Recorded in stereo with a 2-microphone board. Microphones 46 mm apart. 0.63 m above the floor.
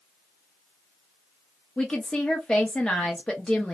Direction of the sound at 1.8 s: 15° left (ahead or behind).